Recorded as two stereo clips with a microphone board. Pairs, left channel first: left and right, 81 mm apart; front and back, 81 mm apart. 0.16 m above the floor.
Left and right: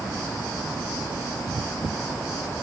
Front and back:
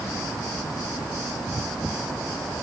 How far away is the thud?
No thud in this recording.